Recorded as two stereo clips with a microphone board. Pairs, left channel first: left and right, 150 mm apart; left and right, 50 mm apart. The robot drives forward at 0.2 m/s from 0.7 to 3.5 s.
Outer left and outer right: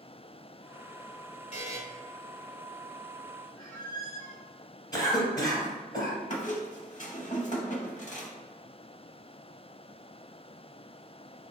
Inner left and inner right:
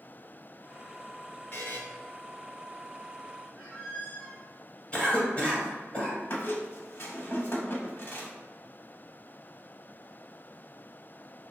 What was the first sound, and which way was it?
A buzzer, 45° left (ahead or behind).